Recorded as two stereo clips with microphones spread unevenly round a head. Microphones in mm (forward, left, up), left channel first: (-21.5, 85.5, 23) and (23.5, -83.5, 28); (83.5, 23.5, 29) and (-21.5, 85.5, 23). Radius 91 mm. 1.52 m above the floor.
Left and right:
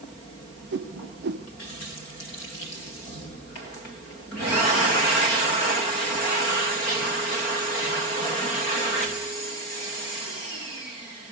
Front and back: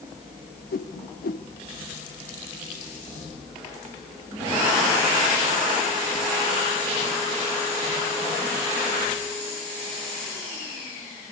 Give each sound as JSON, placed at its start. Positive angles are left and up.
{"t": 0.7, "sound": "a whoosh", "azimuth_deg": -45, "distance_m": 0.9}